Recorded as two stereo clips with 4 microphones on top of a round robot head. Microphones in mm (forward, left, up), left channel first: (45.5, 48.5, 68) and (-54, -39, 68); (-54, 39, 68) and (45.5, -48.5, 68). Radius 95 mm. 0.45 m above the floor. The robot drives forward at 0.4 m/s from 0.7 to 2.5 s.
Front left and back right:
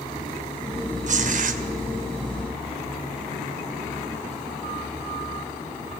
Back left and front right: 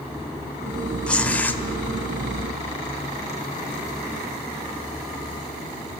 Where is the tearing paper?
140° right, 1.4 m; by 1.6 s 145° right, 1.6 m.